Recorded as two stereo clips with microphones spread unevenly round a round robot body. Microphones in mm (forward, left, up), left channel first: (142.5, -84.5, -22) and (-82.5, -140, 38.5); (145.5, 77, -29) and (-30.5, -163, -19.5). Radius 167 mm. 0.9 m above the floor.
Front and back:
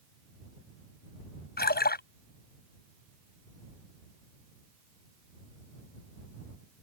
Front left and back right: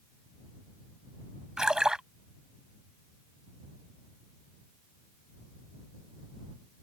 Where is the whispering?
No whispering in this recording.